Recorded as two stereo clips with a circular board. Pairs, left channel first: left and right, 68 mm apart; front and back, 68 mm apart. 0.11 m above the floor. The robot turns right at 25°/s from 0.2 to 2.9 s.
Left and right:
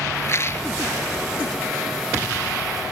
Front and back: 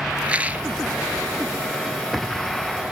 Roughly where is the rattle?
Left.